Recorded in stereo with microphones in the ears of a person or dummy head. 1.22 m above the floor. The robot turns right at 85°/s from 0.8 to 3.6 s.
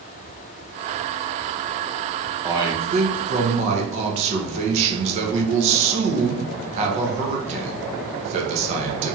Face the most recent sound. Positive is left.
turn(degrees=-60)